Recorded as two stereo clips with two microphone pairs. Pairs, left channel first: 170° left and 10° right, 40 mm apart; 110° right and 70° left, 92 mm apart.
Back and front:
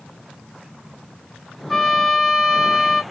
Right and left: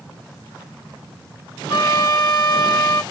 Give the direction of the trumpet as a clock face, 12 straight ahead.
4 o'clock.